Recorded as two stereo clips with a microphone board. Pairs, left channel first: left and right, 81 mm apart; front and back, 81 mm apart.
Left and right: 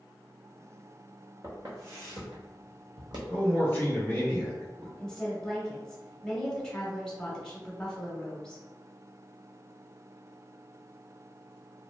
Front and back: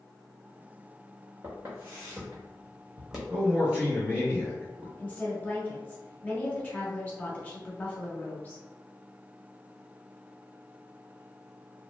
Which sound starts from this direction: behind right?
Footsteps, at 1.4 s.